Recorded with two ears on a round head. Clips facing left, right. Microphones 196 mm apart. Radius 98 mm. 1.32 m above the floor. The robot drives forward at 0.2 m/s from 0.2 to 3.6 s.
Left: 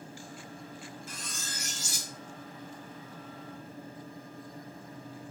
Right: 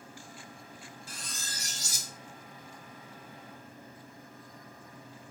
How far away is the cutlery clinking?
About 0.6 m.